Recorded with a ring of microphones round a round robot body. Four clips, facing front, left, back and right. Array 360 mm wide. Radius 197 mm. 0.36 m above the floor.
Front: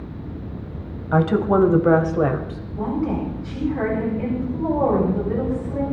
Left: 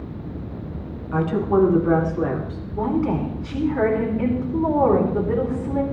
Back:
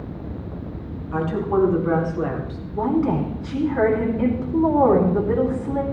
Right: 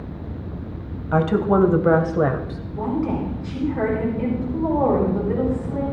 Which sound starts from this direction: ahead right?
A woman speaking, at 1.1 s.